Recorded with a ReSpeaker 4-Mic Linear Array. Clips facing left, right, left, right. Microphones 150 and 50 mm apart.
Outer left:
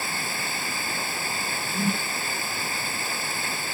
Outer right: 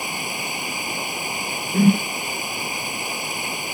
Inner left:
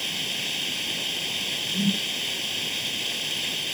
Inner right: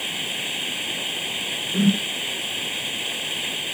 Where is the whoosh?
60° right (ahead or behind).